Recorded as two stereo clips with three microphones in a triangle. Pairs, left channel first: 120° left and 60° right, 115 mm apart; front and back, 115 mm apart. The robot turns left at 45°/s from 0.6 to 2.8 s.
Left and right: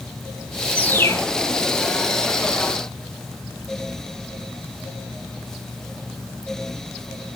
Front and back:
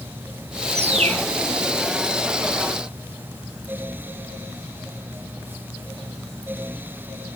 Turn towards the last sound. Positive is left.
turn(degrees=105)